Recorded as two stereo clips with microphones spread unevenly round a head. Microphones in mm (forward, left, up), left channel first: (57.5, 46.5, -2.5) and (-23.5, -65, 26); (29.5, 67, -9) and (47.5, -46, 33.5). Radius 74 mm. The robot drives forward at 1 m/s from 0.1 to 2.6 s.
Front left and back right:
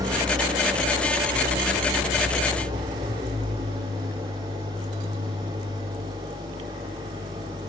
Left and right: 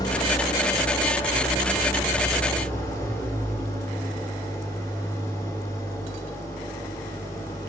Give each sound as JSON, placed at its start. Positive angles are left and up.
{"t": 0.0, "sound": "an engine running", "azimuth_deg": 170, "distance_m": 2.0}